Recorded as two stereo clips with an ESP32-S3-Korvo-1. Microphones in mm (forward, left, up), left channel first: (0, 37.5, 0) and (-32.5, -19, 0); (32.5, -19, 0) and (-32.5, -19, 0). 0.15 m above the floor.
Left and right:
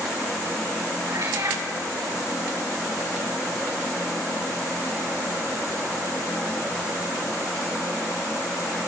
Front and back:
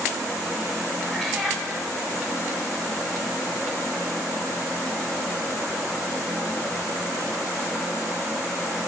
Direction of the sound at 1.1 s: 90° right.